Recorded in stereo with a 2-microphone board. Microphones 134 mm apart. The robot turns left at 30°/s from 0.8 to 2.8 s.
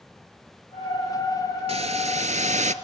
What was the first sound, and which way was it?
A hiss, 60° right.